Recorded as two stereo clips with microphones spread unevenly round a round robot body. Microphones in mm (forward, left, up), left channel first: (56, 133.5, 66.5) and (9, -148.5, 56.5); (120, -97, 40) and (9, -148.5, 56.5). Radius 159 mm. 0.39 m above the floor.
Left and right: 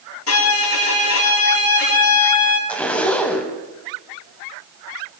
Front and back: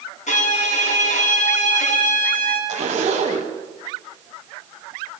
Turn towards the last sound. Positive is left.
turn(degrees=165)